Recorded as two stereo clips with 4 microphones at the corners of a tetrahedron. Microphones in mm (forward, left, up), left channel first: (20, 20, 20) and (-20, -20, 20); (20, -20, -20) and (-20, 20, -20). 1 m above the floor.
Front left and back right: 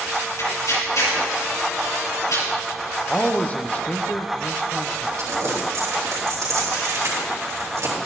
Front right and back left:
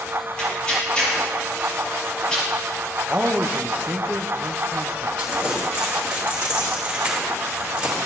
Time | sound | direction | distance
0.4 | tearing paper | 30° left | 5 m
3.1 | a man speaking | 95° left | 0.8 m
5.2 | crumpling | 155° right | 3.5 m